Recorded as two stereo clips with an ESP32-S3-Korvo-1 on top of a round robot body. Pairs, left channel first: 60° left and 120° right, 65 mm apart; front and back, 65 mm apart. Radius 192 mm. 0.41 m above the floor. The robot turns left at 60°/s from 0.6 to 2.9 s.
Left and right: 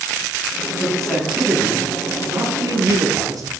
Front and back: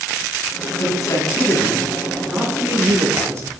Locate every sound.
0.8 s a man speaking: 10° right, 7 m; by 3.5 s 135° right, 7 m